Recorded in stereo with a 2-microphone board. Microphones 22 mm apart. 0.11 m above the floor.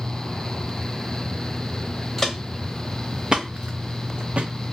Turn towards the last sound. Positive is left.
turn(degrees=-70)  # may be behind; listen again after turning